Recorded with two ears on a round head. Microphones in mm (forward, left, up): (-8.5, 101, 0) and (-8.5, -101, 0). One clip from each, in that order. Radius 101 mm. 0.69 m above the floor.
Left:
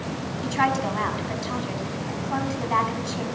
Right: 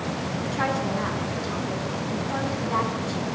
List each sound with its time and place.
0.4 s a woman speaking: 80° left, 5.5 m